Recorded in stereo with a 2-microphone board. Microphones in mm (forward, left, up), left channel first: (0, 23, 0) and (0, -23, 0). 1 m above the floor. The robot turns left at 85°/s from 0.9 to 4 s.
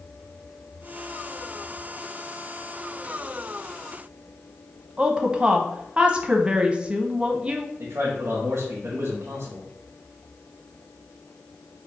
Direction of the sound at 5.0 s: 20° right (ahead or behind).